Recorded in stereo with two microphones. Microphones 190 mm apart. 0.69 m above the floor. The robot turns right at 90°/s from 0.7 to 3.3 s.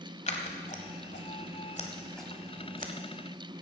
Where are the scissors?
40° left (ahead or behind), 1.2 m; by 2.9 s 60° right (ahead or behind), 1.2 m.